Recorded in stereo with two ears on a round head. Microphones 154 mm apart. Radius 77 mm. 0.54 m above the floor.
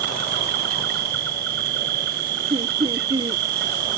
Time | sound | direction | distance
0.0 | an insect | 65° right (ahead or behind) | ?
2.5 | laughter | 30° right (ahead or behind) | ?